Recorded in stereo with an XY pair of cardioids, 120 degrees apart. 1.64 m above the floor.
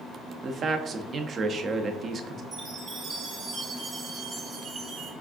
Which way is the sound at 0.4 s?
45° right.